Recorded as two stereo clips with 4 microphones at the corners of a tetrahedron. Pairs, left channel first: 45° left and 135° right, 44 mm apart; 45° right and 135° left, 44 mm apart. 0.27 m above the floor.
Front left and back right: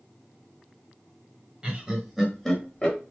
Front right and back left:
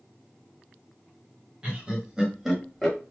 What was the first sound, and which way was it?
Laughter, straight behind.